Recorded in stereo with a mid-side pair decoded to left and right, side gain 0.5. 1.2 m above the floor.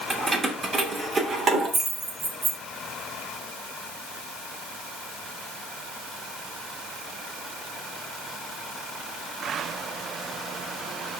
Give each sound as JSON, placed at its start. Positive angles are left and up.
{"t": 0.1, "sound": "keys jangling", "azimuth_deg": -25, "distance_m": 2.5}